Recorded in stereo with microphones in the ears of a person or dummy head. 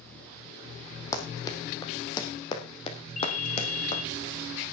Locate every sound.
1.1 s running footsteps: 15° left (ahead or behind), 4 m; by 4.0 s 30° left (ahead or behind), 5 m
3.2 s a ringtone: 40° left (ahead or behind), 2.5 m